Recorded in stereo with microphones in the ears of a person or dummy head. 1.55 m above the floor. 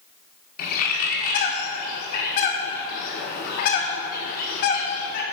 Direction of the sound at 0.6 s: 45° left (ahead or behind).